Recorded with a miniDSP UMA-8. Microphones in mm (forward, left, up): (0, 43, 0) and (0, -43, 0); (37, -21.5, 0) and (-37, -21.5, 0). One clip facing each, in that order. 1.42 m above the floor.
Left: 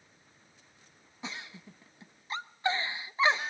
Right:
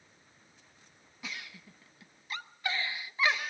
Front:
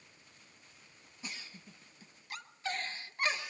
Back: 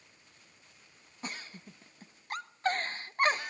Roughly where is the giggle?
Behind left.